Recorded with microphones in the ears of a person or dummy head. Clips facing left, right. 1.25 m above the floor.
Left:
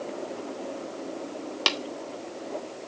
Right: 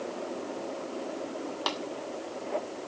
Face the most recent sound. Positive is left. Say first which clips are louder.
# left 4 dB
turn(degrees=35)  # may be behind; listen again after turning